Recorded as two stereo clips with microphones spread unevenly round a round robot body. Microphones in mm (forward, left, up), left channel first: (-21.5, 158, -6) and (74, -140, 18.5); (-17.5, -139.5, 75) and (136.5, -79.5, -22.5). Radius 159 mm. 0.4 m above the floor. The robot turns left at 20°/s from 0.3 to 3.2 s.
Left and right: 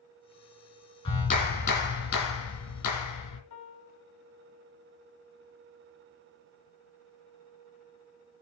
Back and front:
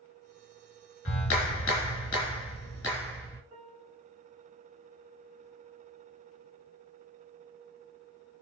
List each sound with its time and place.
1.1 s a clap: straight behind, 2.5 m; by 3.4 s 135° left, 2.5 m
3.5 s a piano: 85° left, 1.2 m